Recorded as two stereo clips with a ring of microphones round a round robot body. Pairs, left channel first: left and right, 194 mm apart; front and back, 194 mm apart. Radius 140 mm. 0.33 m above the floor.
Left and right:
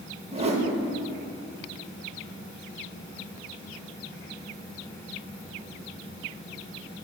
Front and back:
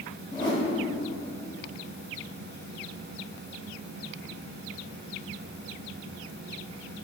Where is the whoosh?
55° right, 0.8 m.